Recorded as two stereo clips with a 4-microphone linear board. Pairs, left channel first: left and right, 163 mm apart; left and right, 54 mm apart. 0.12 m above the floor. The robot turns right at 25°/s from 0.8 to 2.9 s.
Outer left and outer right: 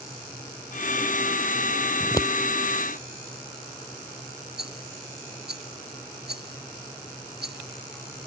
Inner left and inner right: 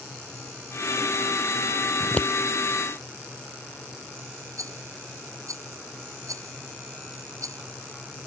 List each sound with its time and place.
2.0 s scissors: 20° left (ahead or behind); by 2.3 s 25° left (ahead or behind)
4.6 s a rattle: 85° right